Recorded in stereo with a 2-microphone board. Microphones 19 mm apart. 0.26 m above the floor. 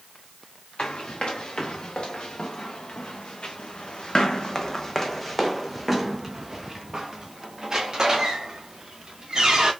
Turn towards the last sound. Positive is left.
turn(degrees=-40)  # may be behind; listen again after turning